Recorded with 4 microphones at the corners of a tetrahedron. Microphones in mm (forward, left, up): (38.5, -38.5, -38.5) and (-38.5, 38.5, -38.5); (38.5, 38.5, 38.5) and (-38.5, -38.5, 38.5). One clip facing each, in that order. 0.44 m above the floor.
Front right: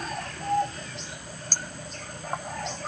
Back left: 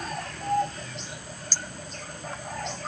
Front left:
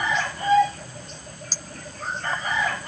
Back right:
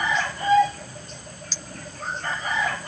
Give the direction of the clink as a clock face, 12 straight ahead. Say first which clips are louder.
Even, even; 12 o'clock.